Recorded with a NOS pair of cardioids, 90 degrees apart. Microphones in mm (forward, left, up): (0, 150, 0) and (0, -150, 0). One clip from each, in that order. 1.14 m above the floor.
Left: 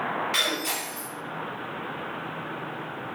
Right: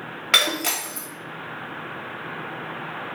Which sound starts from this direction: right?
Breaking glass, at 0.3 s.